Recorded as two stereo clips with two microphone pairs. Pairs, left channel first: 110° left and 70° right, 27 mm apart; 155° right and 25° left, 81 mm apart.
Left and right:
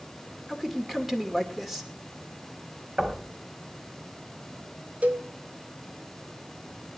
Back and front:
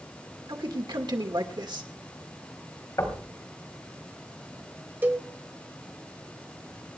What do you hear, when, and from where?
0.5 s a man speaking: 5° left, 2.5 m
3.0 s knocking: 110° right, 3.5 m
5.0 s a cowbell: 40° right, 1.4 m